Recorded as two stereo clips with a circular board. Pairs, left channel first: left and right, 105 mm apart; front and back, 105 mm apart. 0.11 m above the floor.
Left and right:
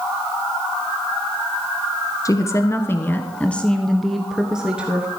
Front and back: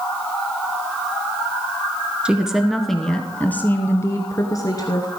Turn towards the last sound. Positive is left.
turn(degrees=-20)